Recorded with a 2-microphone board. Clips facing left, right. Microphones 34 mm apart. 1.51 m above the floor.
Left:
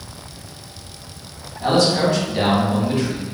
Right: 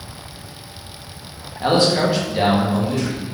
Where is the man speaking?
35° right (ahead or behind), 1.2 m; by 3.2 s 35° left (ahead or behind), 1.4 m.